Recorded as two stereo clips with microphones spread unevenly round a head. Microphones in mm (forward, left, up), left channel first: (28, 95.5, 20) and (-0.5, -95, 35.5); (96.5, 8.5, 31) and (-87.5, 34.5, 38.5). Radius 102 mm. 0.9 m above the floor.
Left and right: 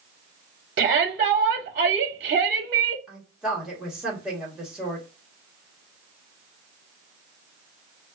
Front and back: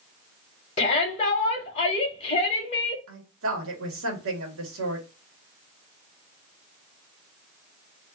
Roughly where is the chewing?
I don't hear chewing.